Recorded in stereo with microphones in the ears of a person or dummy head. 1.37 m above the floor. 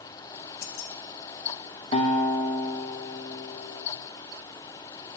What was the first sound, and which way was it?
Keys jangling, 50° left (ahead or behind).